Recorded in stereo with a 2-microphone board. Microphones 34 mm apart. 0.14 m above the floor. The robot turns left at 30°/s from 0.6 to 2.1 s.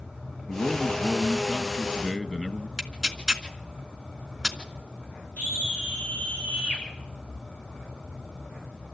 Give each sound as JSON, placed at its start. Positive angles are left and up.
{"t": 0.5, "sound": "a man speaking", "azimuth_deg": 70, "distance_m": 1.7}
{"t": 2.8, "sound": "tearing paper", "side_deg": -5, "distance_m": 1.6}
{"t": 5.4, "sound": "a scream", "side_deg": 75, "distance_m": 7.5}